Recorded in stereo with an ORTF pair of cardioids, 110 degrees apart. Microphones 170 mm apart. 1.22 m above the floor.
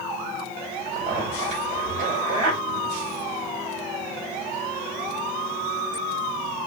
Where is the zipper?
50° right, 6 m.